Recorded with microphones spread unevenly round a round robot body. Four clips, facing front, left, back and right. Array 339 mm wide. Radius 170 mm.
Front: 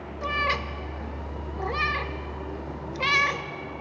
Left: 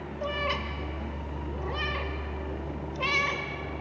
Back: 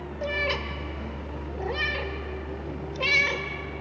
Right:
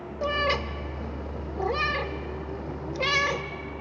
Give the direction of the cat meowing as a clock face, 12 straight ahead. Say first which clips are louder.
Right 5 dB, front 2 dB; 3 o'clock.